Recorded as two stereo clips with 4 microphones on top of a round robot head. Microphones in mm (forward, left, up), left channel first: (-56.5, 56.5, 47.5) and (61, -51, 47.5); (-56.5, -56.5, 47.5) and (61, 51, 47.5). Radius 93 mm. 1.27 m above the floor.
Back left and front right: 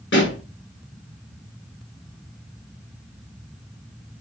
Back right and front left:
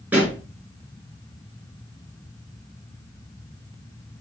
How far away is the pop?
About 5.5 m.